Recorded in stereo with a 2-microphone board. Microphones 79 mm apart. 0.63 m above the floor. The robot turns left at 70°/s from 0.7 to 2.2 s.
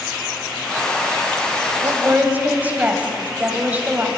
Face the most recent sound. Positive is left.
turn(degrees=-20)  # may be behind; listen again after turning